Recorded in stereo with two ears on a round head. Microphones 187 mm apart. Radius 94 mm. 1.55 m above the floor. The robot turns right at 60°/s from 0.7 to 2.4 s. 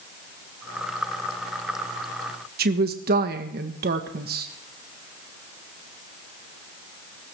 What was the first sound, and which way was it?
A woman speaking, 50° right (ahead or behind).